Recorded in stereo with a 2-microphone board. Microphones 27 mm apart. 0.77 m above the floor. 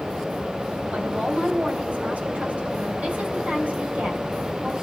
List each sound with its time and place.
0.9 s a woman speaking: 60° right (ahead or behind), 4 m